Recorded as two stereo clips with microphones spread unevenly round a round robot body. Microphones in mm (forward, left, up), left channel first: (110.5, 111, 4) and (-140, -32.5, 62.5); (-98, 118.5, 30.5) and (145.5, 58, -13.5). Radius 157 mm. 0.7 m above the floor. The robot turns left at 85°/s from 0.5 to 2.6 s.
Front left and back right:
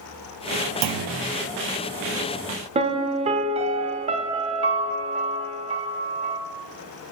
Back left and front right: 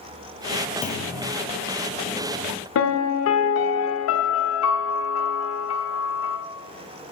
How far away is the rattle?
I don't hear a rattle.